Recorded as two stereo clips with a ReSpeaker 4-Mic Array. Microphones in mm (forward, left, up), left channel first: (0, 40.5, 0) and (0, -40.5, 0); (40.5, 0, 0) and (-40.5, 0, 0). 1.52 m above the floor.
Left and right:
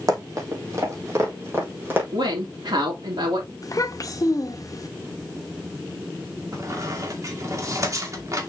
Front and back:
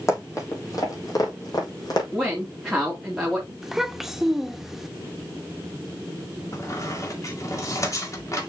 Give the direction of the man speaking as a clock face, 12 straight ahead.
3 o'clock.